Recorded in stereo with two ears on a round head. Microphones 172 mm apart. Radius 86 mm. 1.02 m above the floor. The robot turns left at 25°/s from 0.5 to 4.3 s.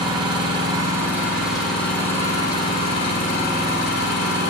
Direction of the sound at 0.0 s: 155° right.